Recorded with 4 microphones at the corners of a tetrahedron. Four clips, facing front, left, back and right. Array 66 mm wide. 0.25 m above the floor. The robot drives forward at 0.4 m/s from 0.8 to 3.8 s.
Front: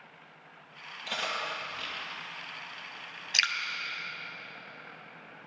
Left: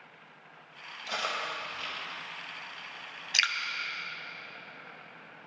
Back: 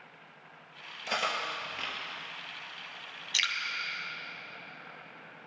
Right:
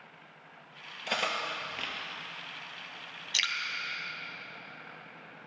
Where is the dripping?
50° left, 0.8 m; by 3.5 s 55° left, 0.8 m.